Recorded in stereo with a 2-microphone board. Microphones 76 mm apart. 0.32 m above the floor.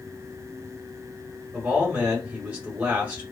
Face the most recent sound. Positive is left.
turn(degrees=-20)  # may be behind; listen again after turning